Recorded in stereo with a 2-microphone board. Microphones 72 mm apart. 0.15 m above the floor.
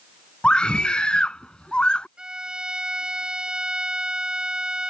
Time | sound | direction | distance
0.4 | a scream | 15° left (ahead or behind) | ?
2.2 | a violin | 10° right (ahead or behind) | ?